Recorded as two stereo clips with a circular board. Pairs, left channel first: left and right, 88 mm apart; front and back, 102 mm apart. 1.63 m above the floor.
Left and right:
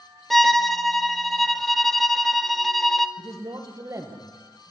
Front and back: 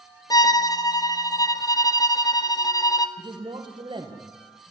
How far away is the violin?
About 0.9 m.